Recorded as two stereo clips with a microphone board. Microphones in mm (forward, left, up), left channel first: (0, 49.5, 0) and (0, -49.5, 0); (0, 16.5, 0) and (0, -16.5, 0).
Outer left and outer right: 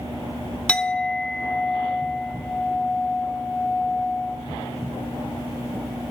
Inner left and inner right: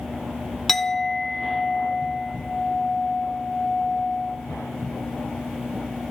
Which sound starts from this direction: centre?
A clink, at 0.7 s.